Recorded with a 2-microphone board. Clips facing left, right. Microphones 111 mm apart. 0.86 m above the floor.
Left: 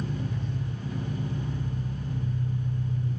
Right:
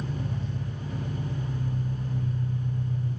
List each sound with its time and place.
0.0 s an engine running: 40° right (ahead or behind), 1.4 m